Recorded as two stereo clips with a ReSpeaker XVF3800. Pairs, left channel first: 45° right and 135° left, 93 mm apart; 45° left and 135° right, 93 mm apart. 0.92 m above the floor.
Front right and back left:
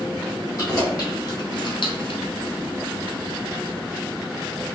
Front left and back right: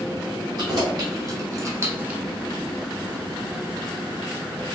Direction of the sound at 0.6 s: 90° right.